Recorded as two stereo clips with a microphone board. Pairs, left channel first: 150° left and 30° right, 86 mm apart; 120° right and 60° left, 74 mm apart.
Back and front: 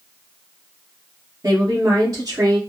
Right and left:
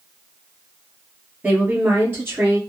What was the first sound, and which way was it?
A woman speaking, straight ahead.